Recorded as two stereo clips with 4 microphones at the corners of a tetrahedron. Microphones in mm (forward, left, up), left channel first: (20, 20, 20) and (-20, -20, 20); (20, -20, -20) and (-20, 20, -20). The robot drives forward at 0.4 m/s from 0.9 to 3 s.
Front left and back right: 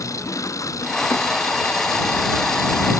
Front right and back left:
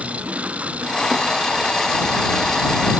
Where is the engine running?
70° left.